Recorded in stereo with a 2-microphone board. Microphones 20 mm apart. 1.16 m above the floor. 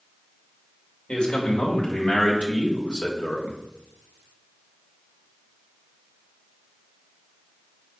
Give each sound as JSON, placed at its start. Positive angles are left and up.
{"t": 1.1, "sound": "a man speaking", "side_deg": 70, "distance_m": 2.0}